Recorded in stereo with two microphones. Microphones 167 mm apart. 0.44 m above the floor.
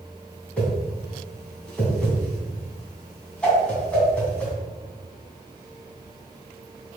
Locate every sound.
0.6 s a whoosh: 5° left (ahead or behind), 2.5 m